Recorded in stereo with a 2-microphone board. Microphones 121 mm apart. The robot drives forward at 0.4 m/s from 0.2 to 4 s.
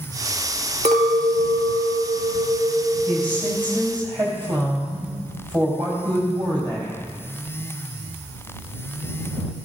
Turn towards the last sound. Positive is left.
turn(degrees=-40)  # may be behind; listen again after turning